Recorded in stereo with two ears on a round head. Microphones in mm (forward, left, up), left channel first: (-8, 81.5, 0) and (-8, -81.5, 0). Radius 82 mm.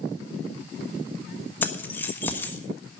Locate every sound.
1.6 s keys jangling: 10° left (ahead or behind), 1.3 m